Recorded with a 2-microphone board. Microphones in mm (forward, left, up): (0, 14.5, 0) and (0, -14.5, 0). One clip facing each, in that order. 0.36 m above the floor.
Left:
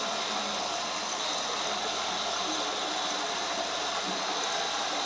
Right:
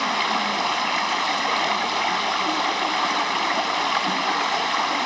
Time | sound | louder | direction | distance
0.0 | running water | right 9 dB | 70° right (ahead or behind) | 0.8 m